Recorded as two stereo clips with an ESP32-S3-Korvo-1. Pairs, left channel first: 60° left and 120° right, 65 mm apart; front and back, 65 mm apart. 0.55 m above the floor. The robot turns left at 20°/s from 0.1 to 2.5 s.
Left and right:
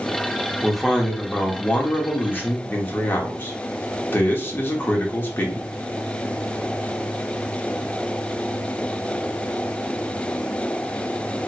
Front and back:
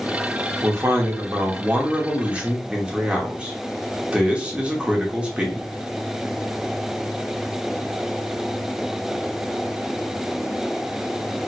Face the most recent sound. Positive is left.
turn(degrees=110)